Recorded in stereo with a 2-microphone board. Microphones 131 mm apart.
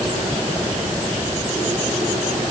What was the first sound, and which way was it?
Only background noise.